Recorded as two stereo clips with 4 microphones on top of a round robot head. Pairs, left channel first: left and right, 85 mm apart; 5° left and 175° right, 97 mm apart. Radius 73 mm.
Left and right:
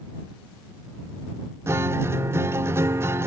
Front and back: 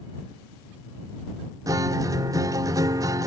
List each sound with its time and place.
1.7 s a guitar: 140° right